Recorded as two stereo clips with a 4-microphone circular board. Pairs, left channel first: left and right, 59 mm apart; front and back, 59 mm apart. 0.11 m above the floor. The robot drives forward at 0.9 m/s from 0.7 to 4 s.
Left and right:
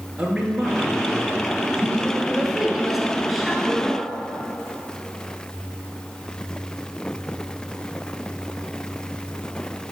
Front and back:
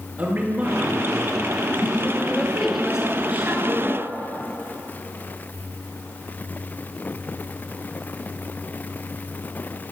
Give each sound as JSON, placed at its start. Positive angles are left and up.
{"t": 0.2, "sound": "a man speaking", "azimuth_deg": -155, "distance_m": 1.9}
{"t": 2.3, "sound": "a woman speaking", "azimuth_deg": -15, "distance_m": 1.2}